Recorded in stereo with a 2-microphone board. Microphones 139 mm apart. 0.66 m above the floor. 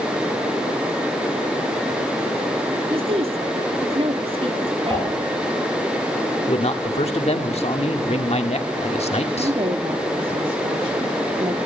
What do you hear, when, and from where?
2.9 s a woman speaking: 45° right (ahead or behind), 1.6 m; by 5.2 s 40° right (ahead or behind), 2 m
4.9 s dishes clattering: 20° left (ahead or behind), 4 m
6.5 s a man speaking: 50° left (ahead or behind), 1.5 m
9.3 s a woman speaking: 40° right (ahead or behind), 1.1 m